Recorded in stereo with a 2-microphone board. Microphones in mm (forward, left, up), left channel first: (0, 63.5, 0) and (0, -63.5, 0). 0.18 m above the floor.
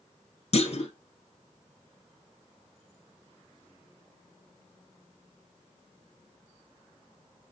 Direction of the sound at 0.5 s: 55° left (ahead or behind).